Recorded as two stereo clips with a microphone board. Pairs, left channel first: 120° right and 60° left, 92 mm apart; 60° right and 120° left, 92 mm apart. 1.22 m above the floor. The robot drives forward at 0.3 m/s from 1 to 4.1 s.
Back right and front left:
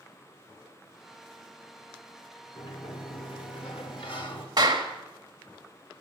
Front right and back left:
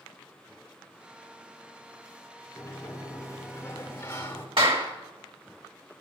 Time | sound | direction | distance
2.6 | a sliding door | 110° right | 1.7 m
4.6 | a clap | 100° left | 2 m